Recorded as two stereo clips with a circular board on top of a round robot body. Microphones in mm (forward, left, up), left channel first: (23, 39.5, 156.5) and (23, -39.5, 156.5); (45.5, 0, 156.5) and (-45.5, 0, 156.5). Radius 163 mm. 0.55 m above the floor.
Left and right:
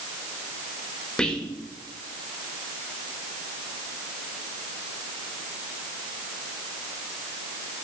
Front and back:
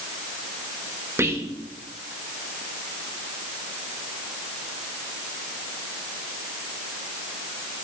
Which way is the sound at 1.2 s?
160° left.